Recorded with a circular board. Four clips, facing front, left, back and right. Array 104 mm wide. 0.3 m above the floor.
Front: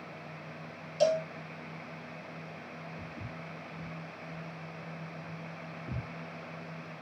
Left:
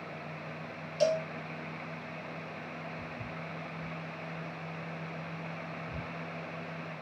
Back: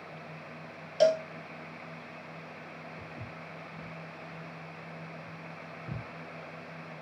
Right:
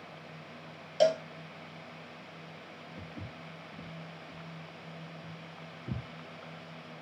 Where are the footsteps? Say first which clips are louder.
Left 4 dB, front 1 dB; 105° right, 5 m; by 6.0 s 90° right, 3.5 m.